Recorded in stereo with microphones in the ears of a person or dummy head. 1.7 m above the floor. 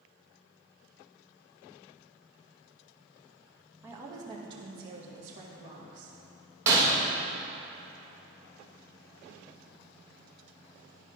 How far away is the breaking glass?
About 1.5 m.